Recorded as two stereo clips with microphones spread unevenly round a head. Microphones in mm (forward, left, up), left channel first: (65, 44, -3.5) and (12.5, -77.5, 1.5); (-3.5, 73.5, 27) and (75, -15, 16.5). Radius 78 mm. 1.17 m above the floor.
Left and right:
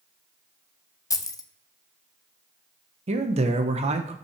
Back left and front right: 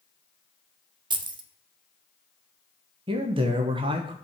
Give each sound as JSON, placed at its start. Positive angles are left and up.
{"t": 1.1, "sound": "keys jangling", "azimuth_deg": 5, "distance_m": 0.8}
{"t": 3.1, "sound": "a man speaking", "azimuth_deg": -85, "distance_m": 1.2}